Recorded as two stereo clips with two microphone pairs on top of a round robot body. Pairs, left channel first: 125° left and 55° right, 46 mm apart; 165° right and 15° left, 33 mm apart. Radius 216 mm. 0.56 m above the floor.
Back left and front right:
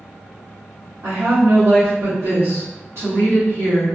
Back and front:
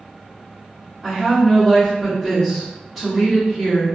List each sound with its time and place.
1.0 s a woman speaking: 65° right, 1.6 m